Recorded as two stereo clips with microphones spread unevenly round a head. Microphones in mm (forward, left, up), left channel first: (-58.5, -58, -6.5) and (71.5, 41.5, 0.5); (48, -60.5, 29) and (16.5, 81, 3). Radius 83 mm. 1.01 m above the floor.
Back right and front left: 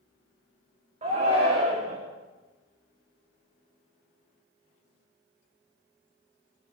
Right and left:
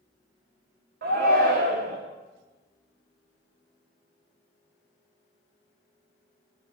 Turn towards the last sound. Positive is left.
turn(degrees=95)